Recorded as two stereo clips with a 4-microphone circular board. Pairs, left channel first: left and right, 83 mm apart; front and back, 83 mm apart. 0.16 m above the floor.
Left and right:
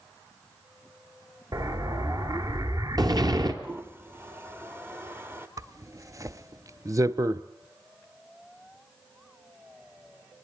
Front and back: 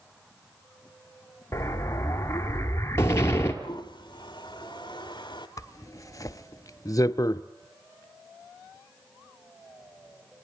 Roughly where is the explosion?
Ahead right.